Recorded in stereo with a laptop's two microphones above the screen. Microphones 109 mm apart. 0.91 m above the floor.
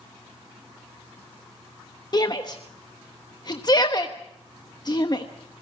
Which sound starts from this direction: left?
A shout, at 2.1 s.